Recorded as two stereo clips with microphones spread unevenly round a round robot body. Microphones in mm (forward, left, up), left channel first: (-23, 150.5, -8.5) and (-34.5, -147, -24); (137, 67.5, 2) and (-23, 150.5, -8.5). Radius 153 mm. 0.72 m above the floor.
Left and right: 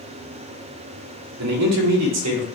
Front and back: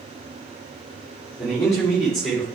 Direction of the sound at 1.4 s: 115° right.